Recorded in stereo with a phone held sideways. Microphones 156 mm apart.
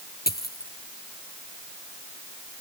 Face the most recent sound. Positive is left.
turn(degrees=80)